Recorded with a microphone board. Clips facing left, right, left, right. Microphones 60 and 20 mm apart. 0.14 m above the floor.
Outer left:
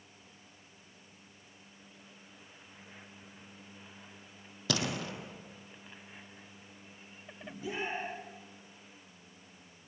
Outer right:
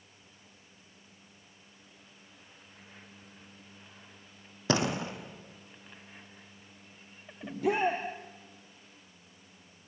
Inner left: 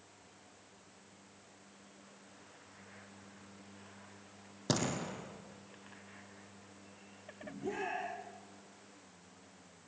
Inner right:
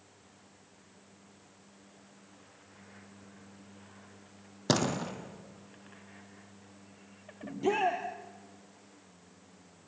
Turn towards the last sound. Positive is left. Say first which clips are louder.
# outer right 10 dB, inner right 10 dB
turn(degrees=-65)  # may be behind; listen again after turning